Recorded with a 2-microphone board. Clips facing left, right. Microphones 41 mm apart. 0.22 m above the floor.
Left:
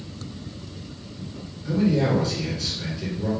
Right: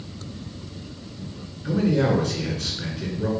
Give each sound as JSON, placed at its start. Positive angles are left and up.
{"t": 1.6, "sound": "a man speaking", "side_deg": -50, "distance_m": 2.5}